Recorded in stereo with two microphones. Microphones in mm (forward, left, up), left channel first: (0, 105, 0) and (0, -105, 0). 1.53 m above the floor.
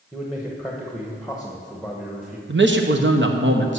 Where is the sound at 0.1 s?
Centre (ahead or behind), 1.1 m.